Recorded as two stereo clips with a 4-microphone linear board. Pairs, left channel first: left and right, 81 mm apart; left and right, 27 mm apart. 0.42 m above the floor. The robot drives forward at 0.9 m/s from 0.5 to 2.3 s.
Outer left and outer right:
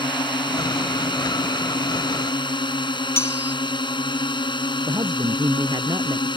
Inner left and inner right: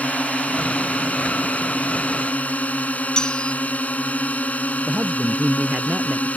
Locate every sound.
0.0 s a drone: 75° left (ahead or behind)
3.2 s cutlery clinking: 35° left (ahead or behind)
4.9 s a man speaking: 60° right (ahead or behind)